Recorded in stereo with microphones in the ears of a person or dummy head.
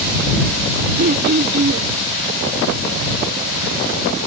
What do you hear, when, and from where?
1.0 s throat clearing: 60° right (ahead or behind)